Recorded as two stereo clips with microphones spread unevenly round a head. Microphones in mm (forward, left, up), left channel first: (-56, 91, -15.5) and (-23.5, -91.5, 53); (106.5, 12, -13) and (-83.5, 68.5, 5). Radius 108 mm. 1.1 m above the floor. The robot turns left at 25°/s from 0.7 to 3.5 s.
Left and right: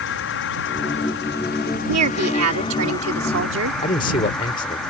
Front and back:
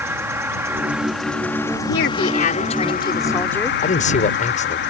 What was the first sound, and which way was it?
An insect, 85° left.